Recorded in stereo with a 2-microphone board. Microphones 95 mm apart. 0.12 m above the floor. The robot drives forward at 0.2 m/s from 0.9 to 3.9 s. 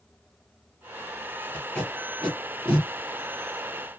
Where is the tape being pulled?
15° left (ahead or behind), 3 m.